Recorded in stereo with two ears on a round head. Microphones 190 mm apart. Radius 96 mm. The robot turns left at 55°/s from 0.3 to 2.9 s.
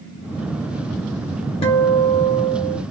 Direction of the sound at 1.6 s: 35° left.